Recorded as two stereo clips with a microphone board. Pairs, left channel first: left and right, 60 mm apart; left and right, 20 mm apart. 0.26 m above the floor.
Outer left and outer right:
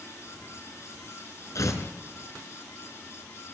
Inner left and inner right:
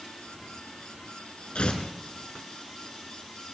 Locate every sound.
1.6 s tearing paper: 60° left (ahead or behind), 2.5 m